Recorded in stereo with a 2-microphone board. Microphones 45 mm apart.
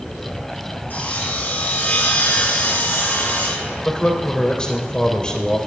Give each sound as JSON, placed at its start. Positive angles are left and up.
{"t": 0.9, "sound": "sawing", "side_deg": 45, "distance_m": 3.0}
{"t": 3.9, "sound": "a man speaking", "side_deg": 20, "distance_m": 3.0}